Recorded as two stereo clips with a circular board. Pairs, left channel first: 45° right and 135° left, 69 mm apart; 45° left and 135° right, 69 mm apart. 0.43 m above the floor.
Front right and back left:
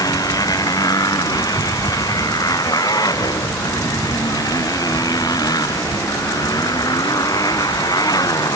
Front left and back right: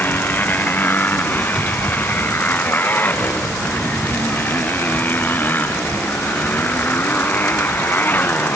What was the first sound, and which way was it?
A motorcycle, 20° right.